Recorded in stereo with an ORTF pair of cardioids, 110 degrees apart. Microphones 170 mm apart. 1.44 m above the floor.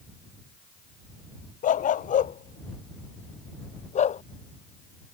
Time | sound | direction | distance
1.6 | a dog barking | 50° left | ?